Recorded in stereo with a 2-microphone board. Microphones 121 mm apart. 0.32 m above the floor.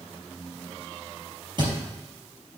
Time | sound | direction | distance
1.6 | a thud | 40° right (ahead or behind) | 3.5 m